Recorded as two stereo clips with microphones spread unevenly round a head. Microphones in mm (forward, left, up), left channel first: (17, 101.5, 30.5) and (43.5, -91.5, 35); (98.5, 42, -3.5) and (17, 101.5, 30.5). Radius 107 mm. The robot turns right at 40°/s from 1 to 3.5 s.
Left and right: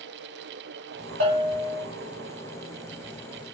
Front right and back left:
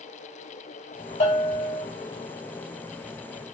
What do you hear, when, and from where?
1.2 s a bell: 40° right, 4 m; by 1.9 s 15° right, 4 m